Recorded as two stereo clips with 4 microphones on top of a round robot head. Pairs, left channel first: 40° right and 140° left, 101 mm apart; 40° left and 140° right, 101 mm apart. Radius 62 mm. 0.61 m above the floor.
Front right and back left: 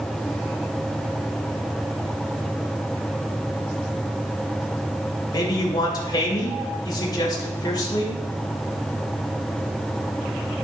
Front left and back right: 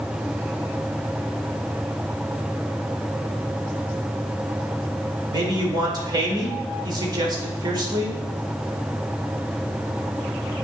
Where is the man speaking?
90° right, 1.8 m.